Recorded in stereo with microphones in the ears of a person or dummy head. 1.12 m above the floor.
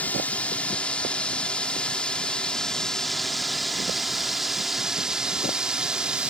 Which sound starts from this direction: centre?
A drone, at 0.0 s.